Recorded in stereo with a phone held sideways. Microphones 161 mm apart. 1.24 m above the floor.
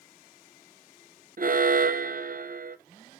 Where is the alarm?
60° right (ahead or behind), 0.6 m.